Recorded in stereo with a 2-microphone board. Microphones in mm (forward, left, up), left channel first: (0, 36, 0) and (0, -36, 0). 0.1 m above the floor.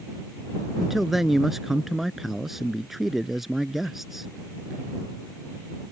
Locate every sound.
0.8 s a man speaking: 5° right (ahead or behind)